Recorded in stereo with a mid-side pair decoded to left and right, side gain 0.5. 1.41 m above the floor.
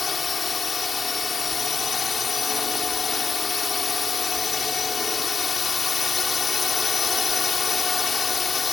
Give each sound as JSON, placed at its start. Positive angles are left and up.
{"t": 0.0, "sound": "a drone", "azimuth_deg": 25}